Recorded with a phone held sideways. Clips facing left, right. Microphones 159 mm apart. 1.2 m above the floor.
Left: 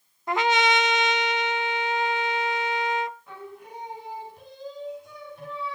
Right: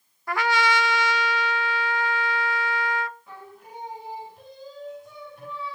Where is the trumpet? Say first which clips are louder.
Left 1 dB; 20° left (ahead or behind), 0.5 m.